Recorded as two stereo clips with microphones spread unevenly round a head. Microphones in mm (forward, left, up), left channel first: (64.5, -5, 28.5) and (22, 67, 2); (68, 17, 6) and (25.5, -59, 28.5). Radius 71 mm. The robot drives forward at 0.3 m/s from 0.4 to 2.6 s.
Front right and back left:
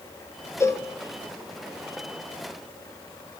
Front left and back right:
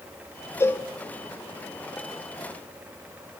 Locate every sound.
0.6 s a cowbell: 5° right, 1.5 m